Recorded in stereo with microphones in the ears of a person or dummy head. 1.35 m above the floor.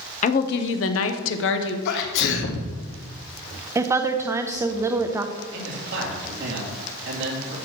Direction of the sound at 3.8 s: 15° right (ahead or behind).